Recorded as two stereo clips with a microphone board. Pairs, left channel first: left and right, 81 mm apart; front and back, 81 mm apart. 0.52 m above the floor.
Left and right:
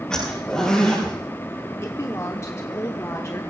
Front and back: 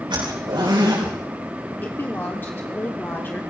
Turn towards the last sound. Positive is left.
turn(degrees=55)